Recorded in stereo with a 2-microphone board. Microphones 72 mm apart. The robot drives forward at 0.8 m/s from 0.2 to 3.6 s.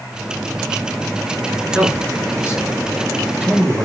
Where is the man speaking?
15° right (ahead or behind), 3.5 m; by 3.9 s 10° right (ahead or behind), 5 m.